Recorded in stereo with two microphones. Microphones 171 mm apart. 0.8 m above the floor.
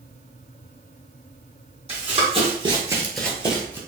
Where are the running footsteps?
40° right (ahead or behind), 1.7 m; by 3.8 s 25° left (ahead or behind), 1.1 m.